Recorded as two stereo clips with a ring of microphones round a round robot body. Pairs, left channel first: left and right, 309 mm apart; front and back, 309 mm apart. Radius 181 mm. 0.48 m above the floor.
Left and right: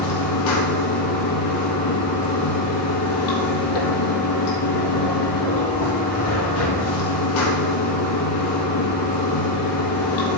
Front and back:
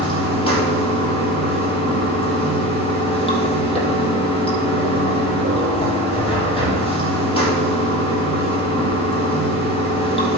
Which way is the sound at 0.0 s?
75° left.